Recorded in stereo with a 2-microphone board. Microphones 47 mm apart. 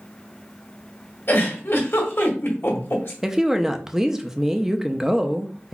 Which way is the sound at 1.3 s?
50° left (ahead or behind).